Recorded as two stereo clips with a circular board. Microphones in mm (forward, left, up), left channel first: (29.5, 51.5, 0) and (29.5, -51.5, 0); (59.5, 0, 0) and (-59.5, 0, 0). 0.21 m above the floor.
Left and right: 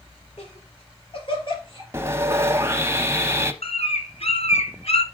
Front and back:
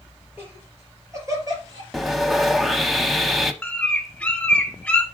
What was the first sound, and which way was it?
Laughter, 110° left.